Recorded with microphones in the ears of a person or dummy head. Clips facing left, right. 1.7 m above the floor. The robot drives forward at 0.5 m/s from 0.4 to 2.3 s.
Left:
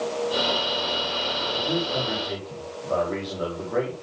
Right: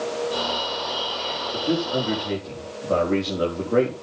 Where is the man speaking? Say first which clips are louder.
Right 4 dB; 35° right (ahead or behind), 5 m; by 3.9 s 40° right (ahead or behind), 4.5 m.